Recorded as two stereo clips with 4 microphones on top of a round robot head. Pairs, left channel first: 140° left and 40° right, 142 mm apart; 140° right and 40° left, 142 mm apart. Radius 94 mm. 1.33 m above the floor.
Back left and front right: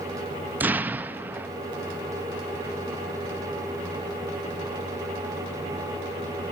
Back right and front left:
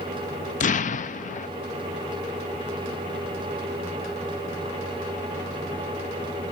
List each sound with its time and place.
0.6 s an explosion: 115° right, 0.5 m